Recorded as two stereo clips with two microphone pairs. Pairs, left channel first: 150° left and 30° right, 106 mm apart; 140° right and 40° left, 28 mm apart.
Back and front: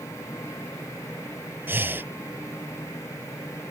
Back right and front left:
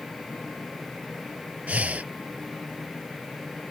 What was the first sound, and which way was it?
Breathing, 40° left.